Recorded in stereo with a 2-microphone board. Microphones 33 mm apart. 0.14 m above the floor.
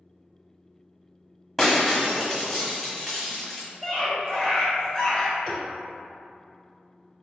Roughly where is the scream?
Centre.